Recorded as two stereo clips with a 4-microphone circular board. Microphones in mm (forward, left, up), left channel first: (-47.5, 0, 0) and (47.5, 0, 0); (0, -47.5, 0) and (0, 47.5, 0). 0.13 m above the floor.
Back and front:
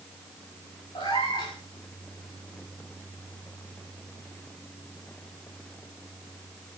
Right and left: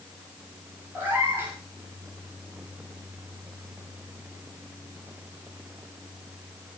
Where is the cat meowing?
160° left, 8.5 m.